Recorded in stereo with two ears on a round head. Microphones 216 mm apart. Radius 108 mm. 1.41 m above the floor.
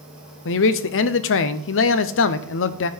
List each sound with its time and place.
0.5 s a man speaking: 55° left (ahead or behind), 0.6 m